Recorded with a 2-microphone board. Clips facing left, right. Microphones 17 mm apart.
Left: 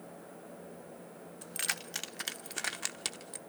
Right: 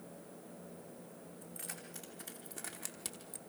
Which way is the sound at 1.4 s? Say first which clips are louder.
Left 14 dB; 70° left (ahead or behind).